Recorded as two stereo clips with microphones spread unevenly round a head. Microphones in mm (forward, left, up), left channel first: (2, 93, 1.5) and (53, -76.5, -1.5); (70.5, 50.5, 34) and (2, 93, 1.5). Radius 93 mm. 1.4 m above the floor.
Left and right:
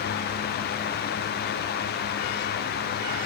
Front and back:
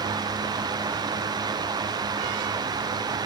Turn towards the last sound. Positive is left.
No sound to turn to.